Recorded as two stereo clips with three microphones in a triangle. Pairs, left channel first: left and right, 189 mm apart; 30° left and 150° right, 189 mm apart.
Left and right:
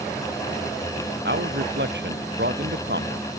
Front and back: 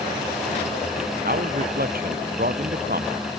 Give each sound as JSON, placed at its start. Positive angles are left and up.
{"t": 1.2, "sound": "a man speaking", "azimuth_deg": -110}